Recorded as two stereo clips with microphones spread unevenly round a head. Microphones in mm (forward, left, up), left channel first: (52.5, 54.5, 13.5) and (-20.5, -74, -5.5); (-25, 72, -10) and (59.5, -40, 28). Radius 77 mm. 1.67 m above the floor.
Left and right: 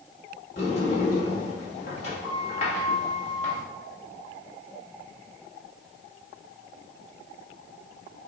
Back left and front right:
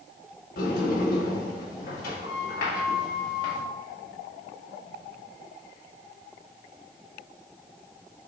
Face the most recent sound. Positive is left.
turn(degrees=100)